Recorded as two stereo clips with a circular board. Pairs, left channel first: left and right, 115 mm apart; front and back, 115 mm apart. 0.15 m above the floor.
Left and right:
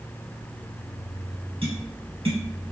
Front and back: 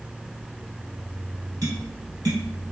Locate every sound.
1.6 s tapping: 125° right, 1.9 m